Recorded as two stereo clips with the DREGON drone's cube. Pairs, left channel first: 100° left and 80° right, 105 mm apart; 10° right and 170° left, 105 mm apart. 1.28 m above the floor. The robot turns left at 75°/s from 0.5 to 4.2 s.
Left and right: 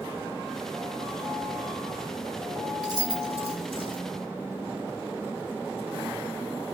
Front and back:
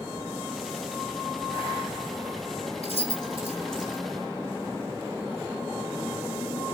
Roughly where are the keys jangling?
Ahead right.